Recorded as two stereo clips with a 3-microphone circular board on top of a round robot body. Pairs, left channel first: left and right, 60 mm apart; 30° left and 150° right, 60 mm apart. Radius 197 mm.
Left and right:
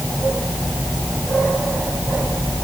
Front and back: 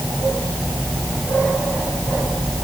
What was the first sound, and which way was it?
Only background noise.